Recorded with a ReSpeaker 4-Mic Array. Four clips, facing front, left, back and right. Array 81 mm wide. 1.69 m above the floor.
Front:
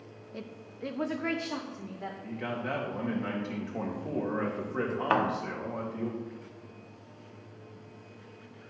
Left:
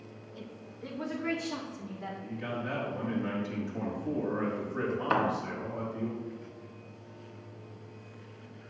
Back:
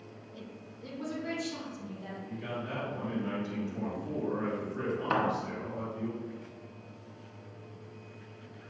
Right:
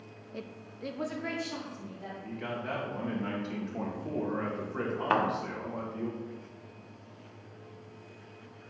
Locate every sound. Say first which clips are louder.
0.3 s a woman speaking: right 4 dB, front 6 dB; 50° right, 0.7 m; by 2.1 s 10° left, 1.7 m
2.2 s a man speaking: even, front 4 dB; 20° right, 2.5 m
5.1 s a thud: right 1 dB, front 3 dB; 35° right, 1.2 m